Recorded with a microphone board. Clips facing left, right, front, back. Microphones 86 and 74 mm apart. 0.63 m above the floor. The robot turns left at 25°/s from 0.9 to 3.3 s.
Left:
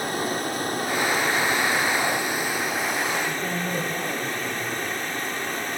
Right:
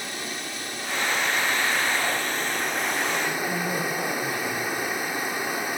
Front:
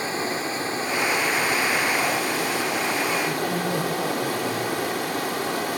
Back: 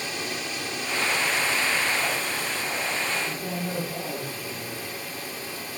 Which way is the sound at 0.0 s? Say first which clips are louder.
Left 8 dB, front 6 dB; 50° left.